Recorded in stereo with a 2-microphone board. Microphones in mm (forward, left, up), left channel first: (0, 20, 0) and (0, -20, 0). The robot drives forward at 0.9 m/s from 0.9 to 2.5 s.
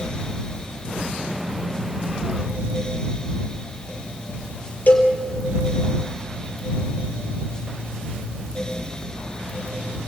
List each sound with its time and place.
4.9 s a cowbell: 50° left (ahead or behind), 3.5 m